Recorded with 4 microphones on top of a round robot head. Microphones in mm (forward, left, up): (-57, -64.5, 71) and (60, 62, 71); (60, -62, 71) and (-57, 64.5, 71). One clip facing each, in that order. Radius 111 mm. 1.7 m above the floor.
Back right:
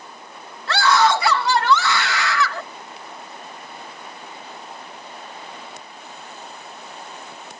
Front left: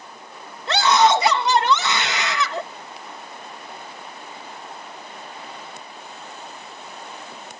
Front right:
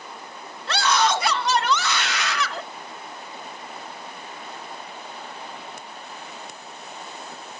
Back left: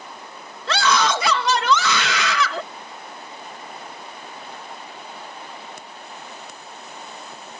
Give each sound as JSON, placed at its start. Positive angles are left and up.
{"t": 0.7, "sound": "a scream", "azimuth_deg": 120}